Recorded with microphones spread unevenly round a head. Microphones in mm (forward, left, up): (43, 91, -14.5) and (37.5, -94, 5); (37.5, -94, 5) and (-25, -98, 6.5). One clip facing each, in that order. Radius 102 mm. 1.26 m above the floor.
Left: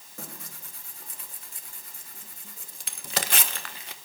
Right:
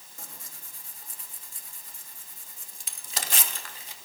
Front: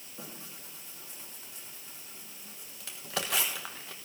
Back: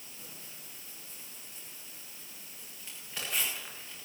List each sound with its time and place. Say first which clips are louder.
0.2 s tearing paper: left 7 dB, front 8 dB; 60° left, 1.1 m